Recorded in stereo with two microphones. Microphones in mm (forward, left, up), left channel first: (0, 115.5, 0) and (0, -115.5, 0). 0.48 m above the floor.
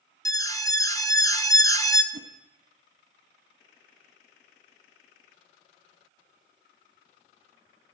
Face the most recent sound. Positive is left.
turn(degrees=-80)